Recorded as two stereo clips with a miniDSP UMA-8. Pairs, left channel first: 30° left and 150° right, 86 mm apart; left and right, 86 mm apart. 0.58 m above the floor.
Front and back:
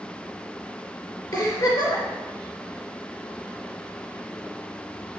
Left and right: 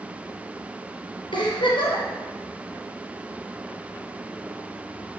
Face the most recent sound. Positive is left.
turn(degrees=70)